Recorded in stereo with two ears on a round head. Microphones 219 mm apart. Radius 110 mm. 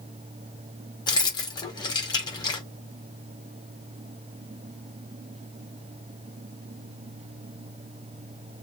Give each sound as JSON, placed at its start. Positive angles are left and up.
{"t": 1.1, "sound": "keys jangling", "side_deg": 20, "distance_m": 0.6}